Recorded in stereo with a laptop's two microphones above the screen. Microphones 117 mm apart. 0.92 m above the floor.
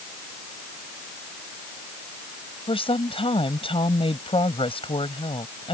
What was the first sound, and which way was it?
A woman speaking, 50° left (ahead or behind).